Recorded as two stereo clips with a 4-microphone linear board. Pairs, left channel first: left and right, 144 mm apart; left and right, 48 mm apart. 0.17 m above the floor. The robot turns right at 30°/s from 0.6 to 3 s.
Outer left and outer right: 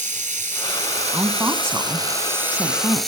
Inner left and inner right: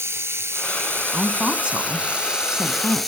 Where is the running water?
70° right, 1.1 m; by 3.1 s straight ahead, 1.1 m.